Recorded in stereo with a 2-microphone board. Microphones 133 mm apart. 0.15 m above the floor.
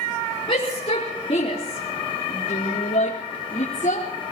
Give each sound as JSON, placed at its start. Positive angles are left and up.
{"t": 0.5, "sound": "a shout", "side_deg": 45, "distance_m": 4.5}